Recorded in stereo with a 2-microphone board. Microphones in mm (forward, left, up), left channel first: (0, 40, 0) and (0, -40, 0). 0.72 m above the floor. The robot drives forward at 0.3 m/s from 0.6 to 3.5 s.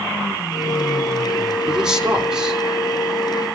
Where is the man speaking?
10° right (ahead or behind), 3 m.